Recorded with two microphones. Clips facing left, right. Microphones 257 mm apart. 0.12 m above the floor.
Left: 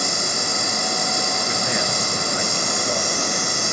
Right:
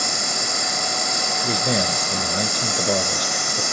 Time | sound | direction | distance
0.0 | an insect | 30° left (ahead or behind) | 9.5 m
1.4 | a man speaking | 40° right (ahead or behind) | 1.4 m